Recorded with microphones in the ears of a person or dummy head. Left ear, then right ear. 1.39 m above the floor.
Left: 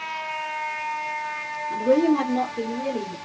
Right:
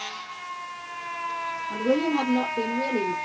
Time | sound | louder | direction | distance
1.7 | a woman speaking | left 5 dB | 50° right (ahead or behind) | 2.0 m